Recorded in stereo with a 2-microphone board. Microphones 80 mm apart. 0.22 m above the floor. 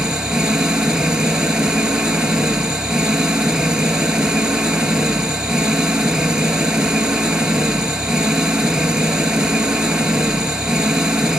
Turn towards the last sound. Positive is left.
turn(degrees=-10)  # may be behind; listen again after turning